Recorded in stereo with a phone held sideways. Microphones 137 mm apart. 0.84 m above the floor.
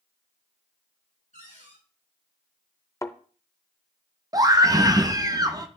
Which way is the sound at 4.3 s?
25° right (ahead or behind).